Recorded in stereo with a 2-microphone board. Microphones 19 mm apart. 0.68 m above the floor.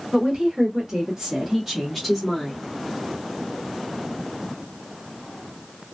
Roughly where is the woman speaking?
Right.